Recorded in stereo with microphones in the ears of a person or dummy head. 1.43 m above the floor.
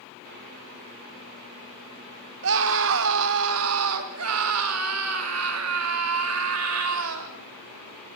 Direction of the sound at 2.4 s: 70° right (ahead or behind).